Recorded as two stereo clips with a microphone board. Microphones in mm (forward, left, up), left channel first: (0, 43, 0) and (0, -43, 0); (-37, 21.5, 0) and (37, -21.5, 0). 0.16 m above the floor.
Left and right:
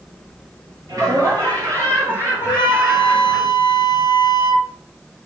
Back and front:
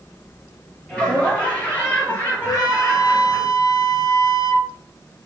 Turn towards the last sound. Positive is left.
turn(degrees=110)